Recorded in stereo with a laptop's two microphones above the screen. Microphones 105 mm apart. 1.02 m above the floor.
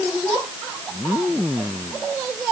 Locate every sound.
Only background noise.